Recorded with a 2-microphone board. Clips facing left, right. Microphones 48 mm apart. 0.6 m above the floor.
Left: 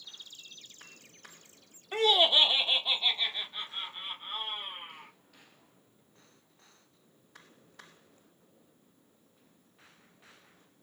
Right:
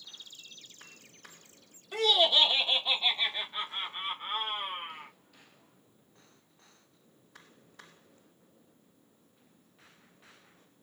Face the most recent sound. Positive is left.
turn(degrees=-45)  # may be behind; listen again after turning